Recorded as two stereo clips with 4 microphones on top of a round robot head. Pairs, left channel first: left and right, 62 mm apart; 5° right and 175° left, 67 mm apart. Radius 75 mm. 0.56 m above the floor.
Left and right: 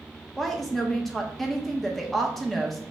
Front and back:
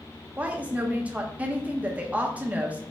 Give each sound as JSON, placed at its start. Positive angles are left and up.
{"t": 0.4, "sound": "a woman speaking", "azimuth_deg": 165, "distance_m": 0.7}